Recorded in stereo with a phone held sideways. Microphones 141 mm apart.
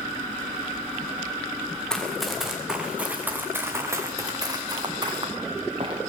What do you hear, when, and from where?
1.9 s running footsteps: 5° left (ahead or behind), 3.5 m; by 6.0 s 40° right (ahead or behind), 5 m